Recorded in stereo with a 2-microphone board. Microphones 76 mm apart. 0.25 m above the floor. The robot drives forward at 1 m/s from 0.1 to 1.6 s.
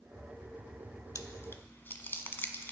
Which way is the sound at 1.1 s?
45° left (ahead or behind).